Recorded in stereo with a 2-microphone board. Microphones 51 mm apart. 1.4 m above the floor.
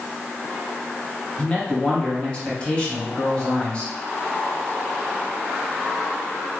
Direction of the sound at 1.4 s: 20° left (ahead or behind).